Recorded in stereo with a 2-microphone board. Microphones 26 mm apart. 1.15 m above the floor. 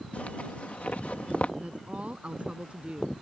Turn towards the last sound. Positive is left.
turn(degrees=-50)  # may be behind; listen again after turning